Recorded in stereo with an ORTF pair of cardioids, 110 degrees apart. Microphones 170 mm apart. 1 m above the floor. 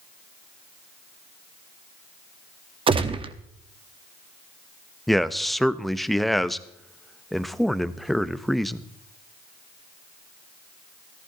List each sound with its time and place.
2.9 s a gunshot: 30° right, 1.0 m
5.1 s a man speaking: straight ahead, 0.6 m